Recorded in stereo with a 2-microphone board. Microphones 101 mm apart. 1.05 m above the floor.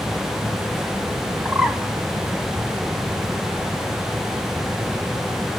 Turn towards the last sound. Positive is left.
turn(degrees=-5)  # may be behind; listen again after turning